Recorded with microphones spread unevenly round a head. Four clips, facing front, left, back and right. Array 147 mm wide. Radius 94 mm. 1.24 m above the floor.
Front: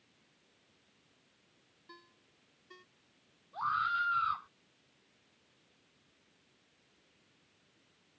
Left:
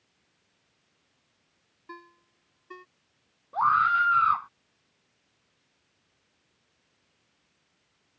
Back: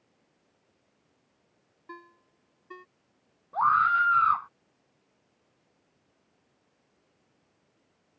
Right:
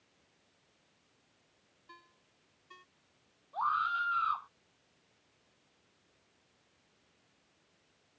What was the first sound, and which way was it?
A ringtone, 145° left.